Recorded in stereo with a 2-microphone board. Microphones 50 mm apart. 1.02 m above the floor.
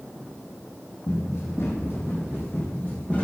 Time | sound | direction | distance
1.1 | running footsteps | 65° left (ahead or behind) | 3 m